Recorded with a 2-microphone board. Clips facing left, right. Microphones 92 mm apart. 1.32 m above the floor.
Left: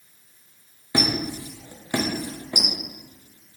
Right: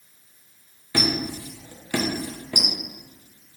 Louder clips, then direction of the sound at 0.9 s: Left 1 dB; 20° left (ahead or behind).